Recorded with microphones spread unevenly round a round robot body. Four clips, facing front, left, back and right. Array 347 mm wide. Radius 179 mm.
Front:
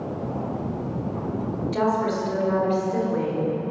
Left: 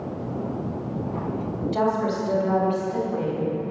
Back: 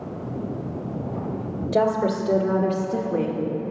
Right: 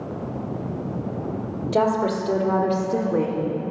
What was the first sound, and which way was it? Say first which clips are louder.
A woman speaking: right 3 dB, back 3 dB; 145° right.